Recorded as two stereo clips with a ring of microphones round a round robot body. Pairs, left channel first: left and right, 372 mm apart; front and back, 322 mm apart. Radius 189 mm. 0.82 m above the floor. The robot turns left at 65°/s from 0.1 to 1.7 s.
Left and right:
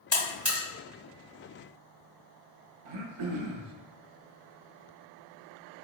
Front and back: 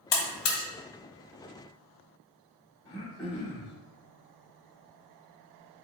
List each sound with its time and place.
0.1 s a buzzer: 5° left, 1.2 m; by 0.6 s 25° right, 1.2 m
2.9 s throat clearing: 80° right, 0.6 m